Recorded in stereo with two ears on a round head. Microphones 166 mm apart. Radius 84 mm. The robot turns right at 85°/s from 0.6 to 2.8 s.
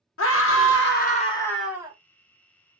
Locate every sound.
0.2 s a scream: 95° left, 0.9 m; by 1.9 s 155° right, 0.9 m